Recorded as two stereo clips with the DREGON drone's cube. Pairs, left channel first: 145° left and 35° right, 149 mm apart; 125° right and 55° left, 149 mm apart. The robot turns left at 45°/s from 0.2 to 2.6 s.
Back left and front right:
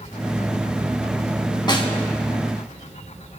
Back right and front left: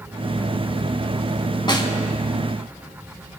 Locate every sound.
1.7 s a snare drum: 170° right, 1.6 m; by 1.9 s straight behind, 1.6 m